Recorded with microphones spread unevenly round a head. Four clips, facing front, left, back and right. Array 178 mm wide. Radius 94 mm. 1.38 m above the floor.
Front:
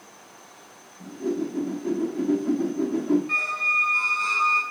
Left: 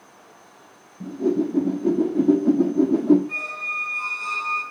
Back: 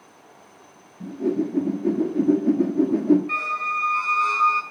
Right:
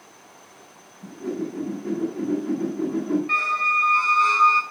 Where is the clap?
No clap in this recording.